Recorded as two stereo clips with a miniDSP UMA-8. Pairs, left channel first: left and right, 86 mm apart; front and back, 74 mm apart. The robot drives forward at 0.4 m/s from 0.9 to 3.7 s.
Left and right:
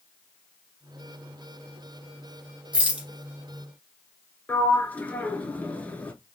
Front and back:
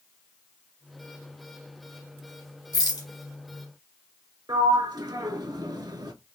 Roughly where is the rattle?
Ahead.